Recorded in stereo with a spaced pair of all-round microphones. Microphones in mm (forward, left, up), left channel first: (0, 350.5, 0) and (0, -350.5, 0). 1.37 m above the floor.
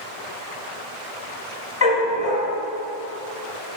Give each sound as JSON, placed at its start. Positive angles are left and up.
{"t": 1.8, "sound": "a dog barking", "side_deg": 55, "distance_m": 1.6}